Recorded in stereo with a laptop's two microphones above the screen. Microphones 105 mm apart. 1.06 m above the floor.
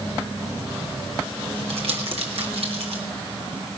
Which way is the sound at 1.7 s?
70° right (ahead or behind).